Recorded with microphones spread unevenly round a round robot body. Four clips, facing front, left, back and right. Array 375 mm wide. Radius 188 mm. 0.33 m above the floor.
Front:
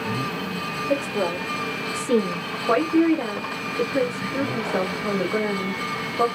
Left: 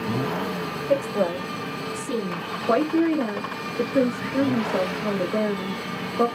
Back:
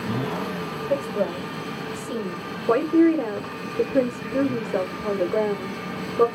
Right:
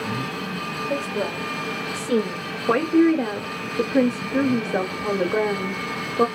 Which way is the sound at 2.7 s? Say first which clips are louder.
Right 3 dB, back 1 dB; 160° right.